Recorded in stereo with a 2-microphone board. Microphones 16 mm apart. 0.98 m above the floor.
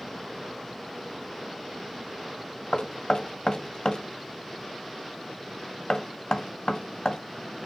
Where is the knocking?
60° left (ahead or behind), 1.3 m.